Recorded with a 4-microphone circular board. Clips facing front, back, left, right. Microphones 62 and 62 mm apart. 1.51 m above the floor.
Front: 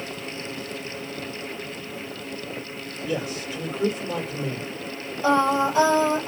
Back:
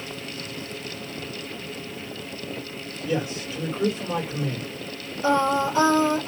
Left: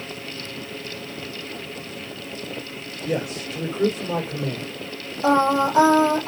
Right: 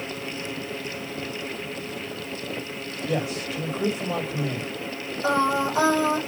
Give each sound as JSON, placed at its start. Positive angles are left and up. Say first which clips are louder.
{"t": 3.0, "sound": "a man speaking", "louder": "back 2 dB, left 1 dB", "azimuth_deg": 95, "distance_m": 3.5}
{"t": 5.2, "sound": "singing", "louder": "front 1 dB, left 4 dB", "azimuth_deg": 85, "distance_m": 3.5}